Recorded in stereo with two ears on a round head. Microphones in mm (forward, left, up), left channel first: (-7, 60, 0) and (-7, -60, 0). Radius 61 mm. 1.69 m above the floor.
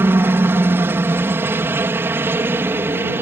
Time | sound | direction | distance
0.0 | a helicopter | 15° right (ahead or behind) | ?